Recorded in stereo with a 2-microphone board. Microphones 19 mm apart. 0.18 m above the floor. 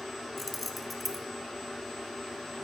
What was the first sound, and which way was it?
Keys jangling, 5° left (ahead or behind).